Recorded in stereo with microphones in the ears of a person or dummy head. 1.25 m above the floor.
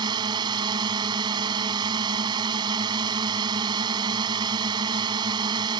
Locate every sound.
0.0 s a drone: 25° right (ahead or behind)